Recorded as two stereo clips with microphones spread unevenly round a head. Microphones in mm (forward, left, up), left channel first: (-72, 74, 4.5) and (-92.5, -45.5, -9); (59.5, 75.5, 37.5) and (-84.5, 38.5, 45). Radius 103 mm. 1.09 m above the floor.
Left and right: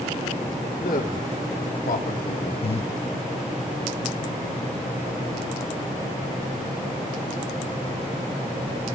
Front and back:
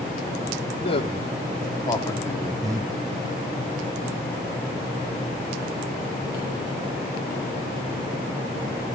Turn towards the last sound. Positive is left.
turn(degrees=125)